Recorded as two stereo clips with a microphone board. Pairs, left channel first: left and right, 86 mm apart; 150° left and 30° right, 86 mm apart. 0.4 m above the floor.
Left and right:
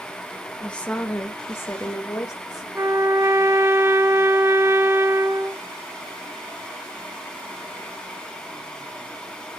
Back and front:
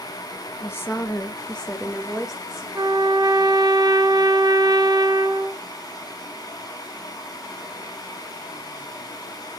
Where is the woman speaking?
165° left, 1.1 m; by 2.6 s 50° left, 1.4 m.